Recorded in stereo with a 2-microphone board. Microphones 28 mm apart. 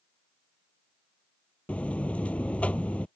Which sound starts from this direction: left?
A buzzer, at 1.7 s.